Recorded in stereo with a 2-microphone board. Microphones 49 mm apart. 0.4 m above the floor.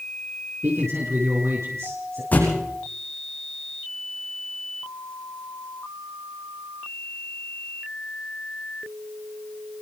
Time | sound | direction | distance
0.6 | a man speaking | 60° right (ahead or behind) | 6 m
2.3 | a thud | 40° left (ahead or behind) | 8 m